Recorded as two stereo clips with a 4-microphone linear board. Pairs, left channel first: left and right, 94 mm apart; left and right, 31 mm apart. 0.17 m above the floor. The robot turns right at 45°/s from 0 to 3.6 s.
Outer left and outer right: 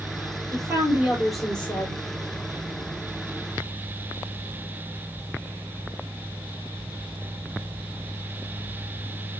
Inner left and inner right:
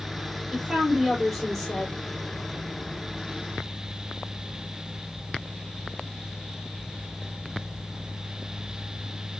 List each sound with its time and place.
0.5 s a woman speaking: 40° right, 4.5 m; by 2.0 s 25° left, 4.5 m